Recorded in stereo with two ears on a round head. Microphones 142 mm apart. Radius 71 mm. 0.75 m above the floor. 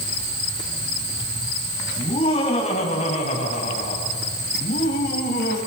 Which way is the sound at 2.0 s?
35° left (ahead or behind).